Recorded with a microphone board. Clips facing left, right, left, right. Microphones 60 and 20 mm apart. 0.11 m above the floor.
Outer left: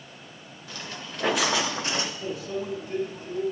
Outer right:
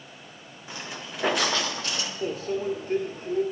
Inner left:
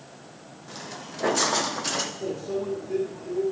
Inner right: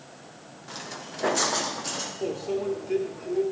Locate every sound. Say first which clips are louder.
0.7 s footsteps: outer right 1 dB, inner right 1 dB; 20° right (ahead or behind), 2 m; by 2.1 s 40° left (ahead or behind), 1.4 m
2.2 s a microwave: outer right 3 dB, inner right 1 dB; 50° right (ahead or behind), 1.7 m